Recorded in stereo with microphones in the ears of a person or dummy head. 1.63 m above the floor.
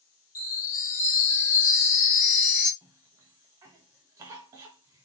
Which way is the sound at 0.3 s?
50° left (ahead or behind).